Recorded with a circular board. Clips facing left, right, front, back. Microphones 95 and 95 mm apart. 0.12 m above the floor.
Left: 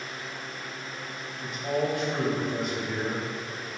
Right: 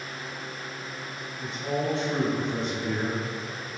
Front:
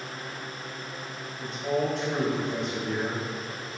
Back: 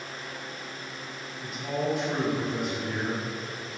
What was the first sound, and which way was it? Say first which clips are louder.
A man speaking: left 1 dB, front 3 dB; 105° right.